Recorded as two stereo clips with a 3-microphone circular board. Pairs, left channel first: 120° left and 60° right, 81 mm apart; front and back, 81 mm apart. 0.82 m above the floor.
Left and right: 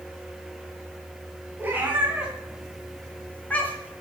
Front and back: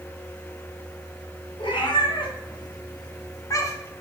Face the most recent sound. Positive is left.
turn(degrees=60)